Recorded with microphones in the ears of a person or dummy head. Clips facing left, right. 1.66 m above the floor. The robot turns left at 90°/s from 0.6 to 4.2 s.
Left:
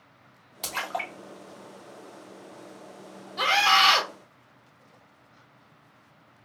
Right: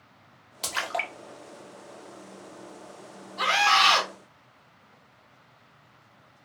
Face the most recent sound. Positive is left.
turn(degrees=5)